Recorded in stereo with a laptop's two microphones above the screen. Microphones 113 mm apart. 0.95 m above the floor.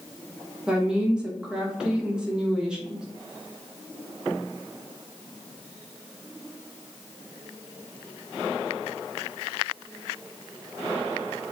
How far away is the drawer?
I don't hear a drawer.